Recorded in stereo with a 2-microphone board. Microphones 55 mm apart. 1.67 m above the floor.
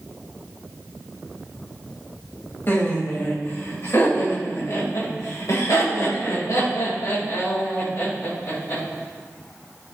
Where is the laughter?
40° left (ahead or behind), 3 m; by 8.8 s 60° left (ahead or behind), 3.5 m.